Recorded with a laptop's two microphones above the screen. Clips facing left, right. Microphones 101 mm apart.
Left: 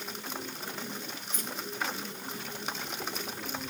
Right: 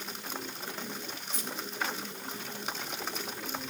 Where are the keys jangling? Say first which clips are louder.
Even; 50° left (ahead or behind), 2 m; by 3.3 s 15° left (ahead or behind), 3.5 m.